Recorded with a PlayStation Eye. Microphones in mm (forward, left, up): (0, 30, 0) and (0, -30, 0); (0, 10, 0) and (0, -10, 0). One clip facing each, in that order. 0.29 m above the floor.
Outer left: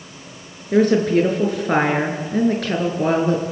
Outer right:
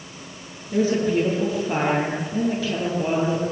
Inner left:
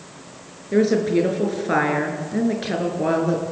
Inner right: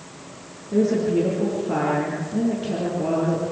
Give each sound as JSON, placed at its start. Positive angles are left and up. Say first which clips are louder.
{"t": 0.7, "sound": "a woman speaking", "louder": "outer left 5 dB, inner left 2 dB", "side_deg": 60, "distance_m": 5.5}